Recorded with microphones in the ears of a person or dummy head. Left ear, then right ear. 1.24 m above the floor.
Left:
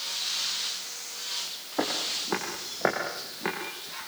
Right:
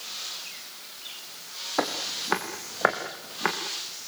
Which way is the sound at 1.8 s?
65° right (ahead or behind).